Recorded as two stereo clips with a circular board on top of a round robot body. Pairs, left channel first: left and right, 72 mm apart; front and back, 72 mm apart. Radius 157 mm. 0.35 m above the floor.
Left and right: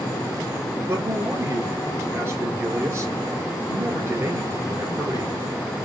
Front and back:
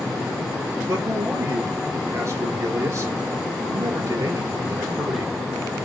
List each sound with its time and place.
0.9 s a man speaking: 135° right, 3 m